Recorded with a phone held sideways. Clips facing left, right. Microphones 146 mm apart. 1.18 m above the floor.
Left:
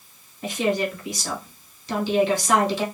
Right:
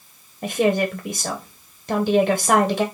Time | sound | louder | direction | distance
0.4 | a woman speaking | right 4 dB | 55° right (ahead or behind) | 0.9 m